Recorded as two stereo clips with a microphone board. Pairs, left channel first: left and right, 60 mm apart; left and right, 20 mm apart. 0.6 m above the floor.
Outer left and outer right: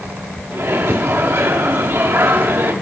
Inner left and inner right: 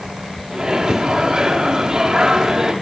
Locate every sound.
0.5 s a microwave: 40° right (ahead or behind), 1.2 m